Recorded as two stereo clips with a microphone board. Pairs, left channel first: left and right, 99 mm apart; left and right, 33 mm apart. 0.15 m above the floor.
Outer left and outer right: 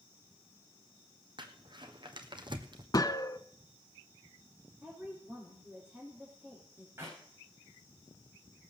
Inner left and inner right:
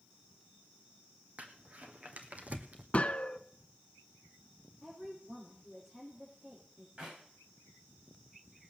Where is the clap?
30° right (ahead or behind), 9.5 m.